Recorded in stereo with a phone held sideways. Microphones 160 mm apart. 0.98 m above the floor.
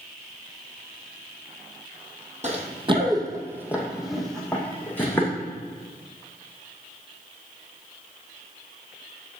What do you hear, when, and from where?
2.4 s running footsteps: 45° right (ahead or behind), 1.8 m; by 5.3 s 15° left (ahead or behind), 3.5 m